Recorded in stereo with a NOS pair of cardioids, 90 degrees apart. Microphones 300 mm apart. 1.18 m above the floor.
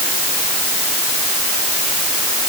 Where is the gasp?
No gasp in this recording.